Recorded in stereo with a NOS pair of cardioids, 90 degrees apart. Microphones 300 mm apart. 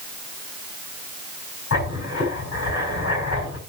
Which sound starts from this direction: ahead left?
Writing, at 1.7 s.